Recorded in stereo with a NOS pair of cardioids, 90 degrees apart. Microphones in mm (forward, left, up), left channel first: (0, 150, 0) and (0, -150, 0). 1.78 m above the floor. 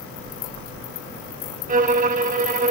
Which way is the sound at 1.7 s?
25° right.